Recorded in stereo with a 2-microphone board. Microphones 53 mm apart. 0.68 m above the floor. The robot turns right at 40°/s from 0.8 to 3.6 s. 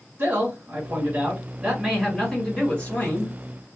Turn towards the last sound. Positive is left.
turn(degrees=70)